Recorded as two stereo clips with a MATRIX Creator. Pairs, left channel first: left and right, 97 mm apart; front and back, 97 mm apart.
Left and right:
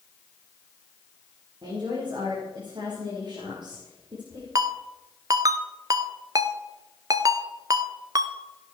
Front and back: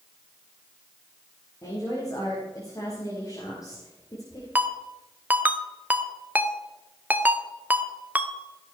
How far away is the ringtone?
About 1.0 m.